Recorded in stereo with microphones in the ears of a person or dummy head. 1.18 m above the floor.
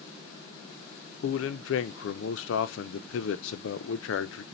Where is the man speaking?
70° left (ahead or behind), 0.7 m.